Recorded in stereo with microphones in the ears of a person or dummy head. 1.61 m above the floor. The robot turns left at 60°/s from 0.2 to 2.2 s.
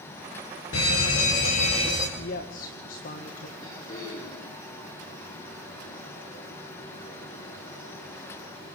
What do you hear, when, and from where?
0.7 s a fire alarm: 95° left, 3 m; by 2.1 s 15° left, 3 m
2.2 s a woman speaking: 50° left (ahead or behind), 1.7 m
3.6 s throat clearing: 40° left (ahead or behind), 9.5 m